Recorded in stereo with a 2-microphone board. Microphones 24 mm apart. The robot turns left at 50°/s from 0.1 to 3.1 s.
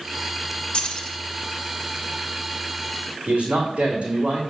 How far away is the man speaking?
About 2.5 m.